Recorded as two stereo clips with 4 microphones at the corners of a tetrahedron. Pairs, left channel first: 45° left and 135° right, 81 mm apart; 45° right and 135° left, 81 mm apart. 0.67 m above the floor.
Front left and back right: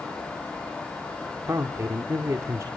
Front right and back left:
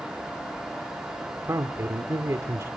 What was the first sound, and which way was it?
A man speaking, straight behind.